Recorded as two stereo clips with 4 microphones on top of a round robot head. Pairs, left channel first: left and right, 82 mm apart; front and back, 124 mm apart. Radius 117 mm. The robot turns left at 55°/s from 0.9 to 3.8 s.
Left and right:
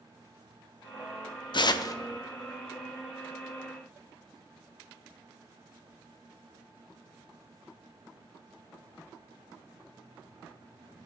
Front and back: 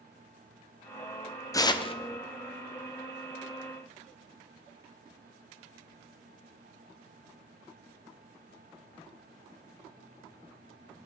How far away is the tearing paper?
About 0.7 m.